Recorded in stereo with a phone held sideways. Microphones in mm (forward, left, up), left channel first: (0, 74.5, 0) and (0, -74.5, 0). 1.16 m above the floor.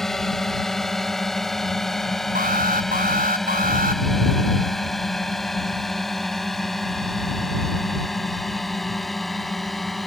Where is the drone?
5° left (ahead or behind); by 10.1 s centre (ahead or behind).